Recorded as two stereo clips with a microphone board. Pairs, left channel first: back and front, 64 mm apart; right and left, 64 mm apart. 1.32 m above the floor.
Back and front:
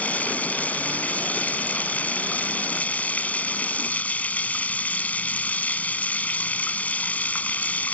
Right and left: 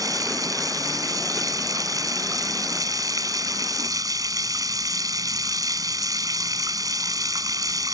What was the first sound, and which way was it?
Running water, 115° left.